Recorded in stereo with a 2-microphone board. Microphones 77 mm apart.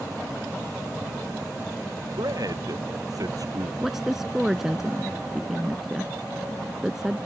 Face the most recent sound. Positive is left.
turn(degrees=-5)  # may be behind; listen again after turning